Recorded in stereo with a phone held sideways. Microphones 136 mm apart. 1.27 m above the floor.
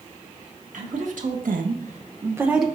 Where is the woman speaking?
65° right (ahead or behind), 1.9 m; by 2.7 s centre (ahead or behind), 1.1 m.